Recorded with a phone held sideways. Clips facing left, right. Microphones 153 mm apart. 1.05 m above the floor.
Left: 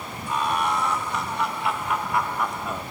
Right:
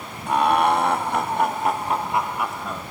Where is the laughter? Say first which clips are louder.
Right 7 dB; 75° right (ahead or behind); by 2.8 s 15° left (ahead or behind).